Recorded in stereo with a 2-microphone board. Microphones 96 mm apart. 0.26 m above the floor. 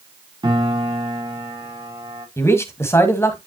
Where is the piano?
55° right (ahead or behind), 3 m.